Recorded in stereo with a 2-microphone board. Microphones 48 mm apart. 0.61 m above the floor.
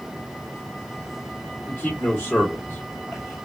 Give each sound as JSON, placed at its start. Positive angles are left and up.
{"t": 1.7, "sound": "a man speaking", "side_deg": 35, "distance_m": 1.8}